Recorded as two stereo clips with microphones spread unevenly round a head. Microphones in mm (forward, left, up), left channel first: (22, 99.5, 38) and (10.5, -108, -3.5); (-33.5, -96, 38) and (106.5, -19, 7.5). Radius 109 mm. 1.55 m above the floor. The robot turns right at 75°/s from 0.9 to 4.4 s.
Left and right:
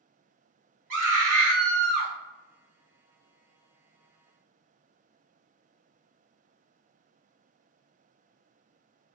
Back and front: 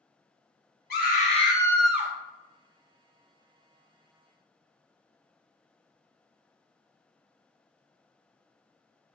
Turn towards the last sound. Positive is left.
turn(degrees=130)